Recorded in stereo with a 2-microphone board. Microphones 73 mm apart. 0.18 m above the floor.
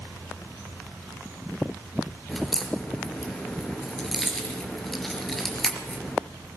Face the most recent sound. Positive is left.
turn(degrees=5)  # may be behind; listen again after turning